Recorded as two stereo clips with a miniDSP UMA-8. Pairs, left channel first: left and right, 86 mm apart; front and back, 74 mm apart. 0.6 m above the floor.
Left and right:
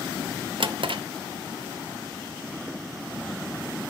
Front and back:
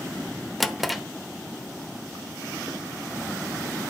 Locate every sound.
0.6 s a drawer: 90° right, 0.7 m